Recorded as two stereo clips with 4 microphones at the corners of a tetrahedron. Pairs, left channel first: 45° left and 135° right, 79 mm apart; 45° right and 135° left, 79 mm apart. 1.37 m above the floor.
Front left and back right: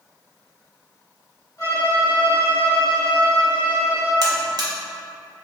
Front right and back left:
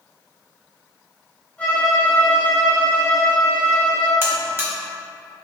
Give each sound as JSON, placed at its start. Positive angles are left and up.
{"t": 1.6, "sound": "a violin", "azimuth_deg": 25, "distance_m": 1.7}
{"t": 4.2, "sound": "a buzzer", "azimuth_deg": -165, "distance_m": 0.8}